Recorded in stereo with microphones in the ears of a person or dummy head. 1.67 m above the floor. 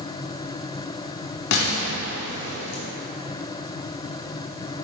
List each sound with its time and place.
1.5 s an explosion: 60° left (ahead or behind), 1.4 m